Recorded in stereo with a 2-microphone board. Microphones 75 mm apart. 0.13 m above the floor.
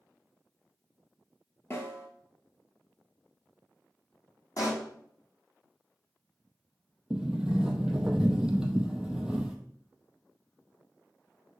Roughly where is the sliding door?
Centre.